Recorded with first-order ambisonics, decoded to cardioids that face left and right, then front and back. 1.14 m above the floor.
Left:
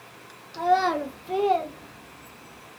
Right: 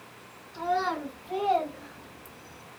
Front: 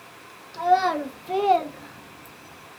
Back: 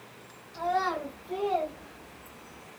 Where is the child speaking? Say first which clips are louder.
Left 6 dB, front 8 dB; 55° left, 1.0 m; by 2.6 s 50° right, 0.9 m.